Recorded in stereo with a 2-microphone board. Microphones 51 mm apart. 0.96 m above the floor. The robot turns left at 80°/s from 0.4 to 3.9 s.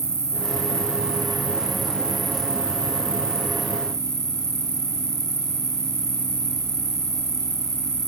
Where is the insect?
70° right; by 8.1 s 10° left.